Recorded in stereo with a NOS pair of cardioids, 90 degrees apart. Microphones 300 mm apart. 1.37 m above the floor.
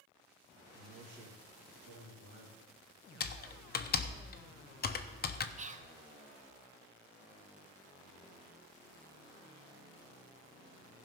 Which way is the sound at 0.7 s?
50° right.